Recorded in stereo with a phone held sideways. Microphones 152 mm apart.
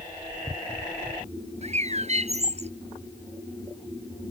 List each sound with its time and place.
1.6 s a bird: 45° right (ahead or behind)